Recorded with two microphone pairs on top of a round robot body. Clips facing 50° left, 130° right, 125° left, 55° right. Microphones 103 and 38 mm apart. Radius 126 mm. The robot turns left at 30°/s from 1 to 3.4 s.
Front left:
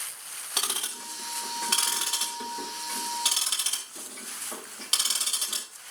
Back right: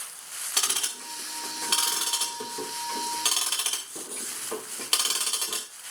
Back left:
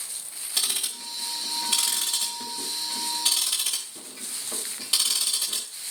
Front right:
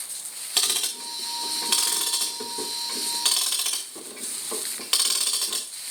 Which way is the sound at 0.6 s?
15° right.